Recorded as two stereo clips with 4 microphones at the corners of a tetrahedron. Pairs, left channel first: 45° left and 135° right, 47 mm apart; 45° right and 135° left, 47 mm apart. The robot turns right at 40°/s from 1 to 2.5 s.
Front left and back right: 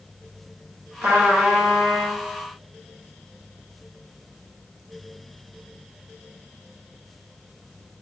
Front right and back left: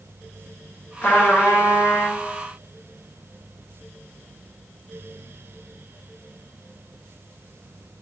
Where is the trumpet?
100° right, 1.5 m; by 2.2 s 55° right, 1.5 m.